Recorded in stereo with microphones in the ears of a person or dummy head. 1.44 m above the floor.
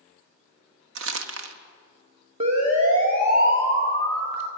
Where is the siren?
35° right (ahead or behind), 3 m; by 4.5 s 65° right (ahead or behind), 3 m.